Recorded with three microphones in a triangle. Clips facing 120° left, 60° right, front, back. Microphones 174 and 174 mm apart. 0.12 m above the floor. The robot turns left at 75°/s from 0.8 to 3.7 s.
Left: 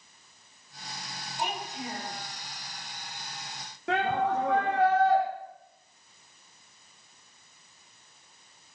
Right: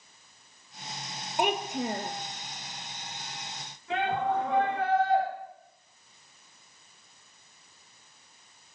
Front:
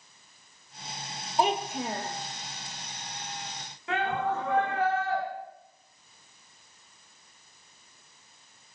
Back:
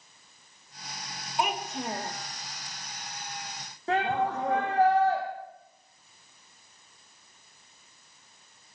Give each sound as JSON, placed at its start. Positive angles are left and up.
{"t": 1.4, "sound": "a child speaking", "azimuth_deg": -50, "distance_m": 1.8}
{"t": 3.9, "sound": "a shout", "azimuth_deg": 130, "distance_m": 5.0}